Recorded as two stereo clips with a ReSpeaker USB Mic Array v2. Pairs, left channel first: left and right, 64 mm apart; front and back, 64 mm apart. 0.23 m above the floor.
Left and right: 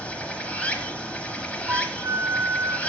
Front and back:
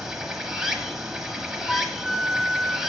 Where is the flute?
85° right, 0.6 m.